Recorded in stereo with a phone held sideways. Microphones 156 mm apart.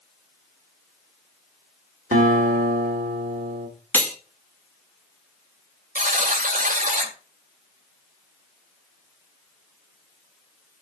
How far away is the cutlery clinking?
About 1.5 m.